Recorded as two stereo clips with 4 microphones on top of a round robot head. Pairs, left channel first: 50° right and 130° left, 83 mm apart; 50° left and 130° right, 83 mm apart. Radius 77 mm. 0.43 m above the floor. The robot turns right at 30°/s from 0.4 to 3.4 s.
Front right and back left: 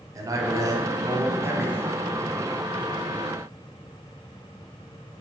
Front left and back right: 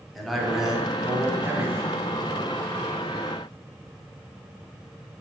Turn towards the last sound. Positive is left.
turn(degrees=-130)